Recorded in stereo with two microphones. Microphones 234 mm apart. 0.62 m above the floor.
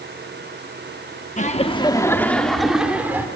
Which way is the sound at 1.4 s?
30° left (ahead or behind).